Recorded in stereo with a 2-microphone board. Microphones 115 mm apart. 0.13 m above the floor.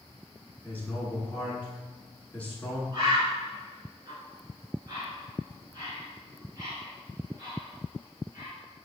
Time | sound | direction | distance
0.6 | a man speaking | 15° left (ahead or behind) | 1.1 m
2.9 | a bird | 35° right (ahead or behind) | 1.7 m